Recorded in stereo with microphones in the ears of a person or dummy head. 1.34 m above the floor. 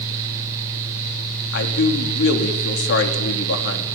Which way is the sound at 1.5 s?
65° left (ahead or behind).